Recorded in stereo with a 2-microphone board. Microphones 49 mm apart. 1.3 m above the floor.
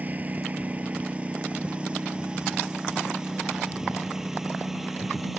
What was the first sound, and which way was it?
A lawn mower, 35° right (ahead or behind).